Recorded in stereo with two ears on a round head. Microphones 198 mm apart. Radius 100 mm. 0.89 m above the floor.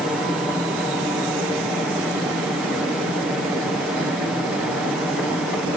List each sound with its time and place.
Only background noise.